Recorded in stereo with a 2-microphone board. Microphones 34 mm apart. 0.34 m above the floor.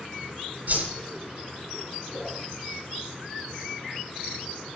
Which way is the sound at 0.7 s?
50° right (ahead or behind).